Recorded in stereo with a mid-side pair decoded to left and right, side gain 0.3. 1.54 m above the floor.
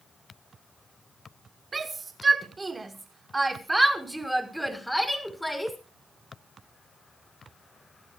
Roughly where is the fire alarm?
I don't hear a fire alarm.